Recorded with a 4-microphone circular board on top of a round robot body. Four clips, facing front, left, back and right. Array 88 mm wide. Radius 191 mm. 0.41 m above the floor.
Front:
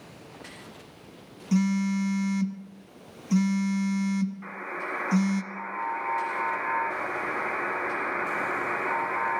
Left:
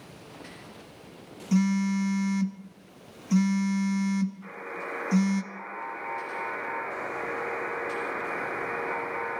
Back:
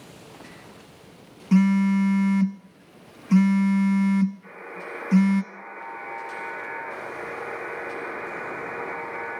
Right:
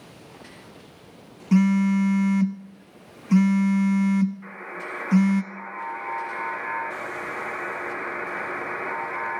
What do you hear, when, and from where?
1.5 s a phone buzzing: 135° right, 1.2 m
4.4 s a buzzer: 5° right, 5 m